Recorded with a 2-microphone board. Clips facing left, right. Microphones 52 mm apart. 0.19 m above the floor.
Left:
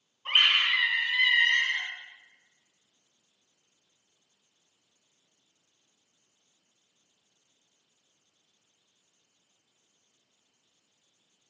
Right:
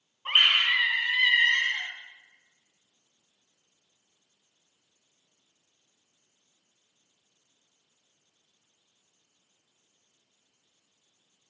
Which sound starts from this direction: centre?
A scream, at 0.2 s.